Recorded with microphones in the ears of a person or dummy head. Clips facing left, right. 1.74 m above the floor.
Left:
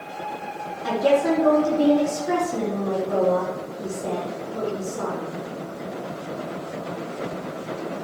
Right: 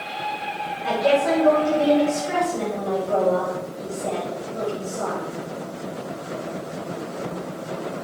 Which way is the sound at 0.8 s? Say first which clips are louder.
Even; 70° left (ahead or behind).